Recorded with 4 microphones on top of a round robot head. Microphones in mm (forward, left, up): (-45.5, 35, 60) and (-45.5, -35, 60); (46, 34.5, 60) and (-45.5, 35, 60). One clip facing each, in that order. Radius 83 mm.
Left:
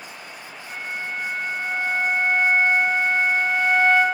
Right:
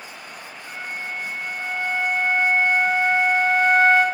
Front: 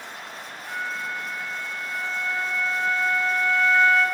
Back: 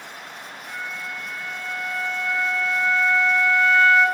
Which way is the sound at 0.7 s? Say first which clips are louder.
Left 1 dB, front 3 dB; 70° right.